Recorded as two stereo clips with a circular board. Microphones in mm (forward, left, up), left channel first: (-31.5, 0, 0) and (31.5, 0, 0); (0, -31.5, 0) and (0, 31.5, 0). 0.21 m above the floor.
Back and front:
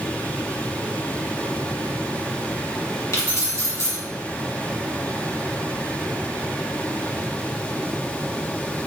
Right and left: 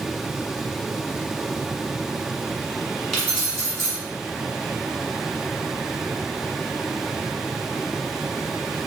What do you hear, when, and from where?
3.1 s keys jangling: 175° right, 1.6 m